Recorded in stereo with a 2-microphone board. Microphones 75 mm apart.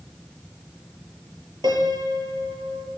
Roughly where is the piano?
Right.